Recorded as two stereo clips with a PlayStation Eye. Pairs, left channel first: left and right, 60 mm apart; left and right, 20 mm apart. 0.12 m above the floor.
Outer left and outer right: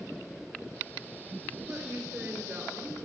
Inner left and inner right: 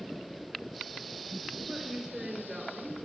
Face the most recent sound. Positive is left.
turn(degrees=-25)  # may be behind; listen again after turning